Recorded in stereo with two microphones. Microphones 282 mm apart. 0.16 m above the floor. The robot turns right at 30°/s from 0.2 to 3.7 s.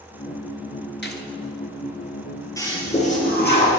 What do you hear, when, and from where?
1.0 s a gunshot: 40° left (ahead or behind), 1.3 m
2.6 s a toilet flushing: 10° left, 3 m; by 3.8 s 45° left, 3 m